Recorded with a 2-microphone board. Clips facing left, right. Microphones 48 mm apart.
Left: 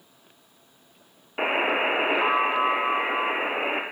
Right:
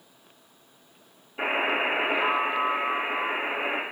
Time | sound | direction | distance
1.4 | a buzzer | 75° left (ahead or behind) | 1.7 m